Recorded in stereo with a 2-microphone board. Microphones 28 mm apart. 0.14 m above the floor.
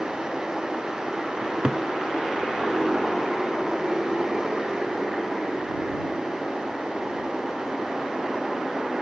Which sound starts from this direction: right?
A cupboard door, at 1.4 s.